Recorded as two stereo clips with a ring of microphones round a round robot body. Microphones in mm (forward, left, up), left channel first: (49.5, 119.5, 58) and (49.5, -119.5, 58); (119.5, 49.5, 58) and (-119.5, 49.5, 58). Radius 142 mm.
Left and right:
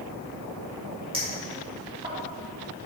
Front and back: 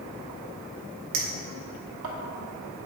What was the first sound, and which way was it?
A clink, 160° right.